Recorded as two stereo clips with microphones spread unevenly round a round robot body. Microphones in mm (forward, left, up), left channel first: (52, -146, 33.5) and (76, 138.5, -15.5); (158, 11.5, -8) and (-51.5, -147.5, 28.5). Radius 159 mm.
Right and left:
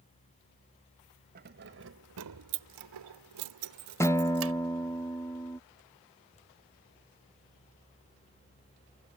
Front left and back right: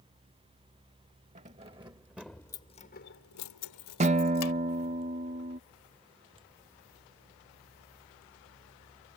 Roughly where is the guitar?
Behind.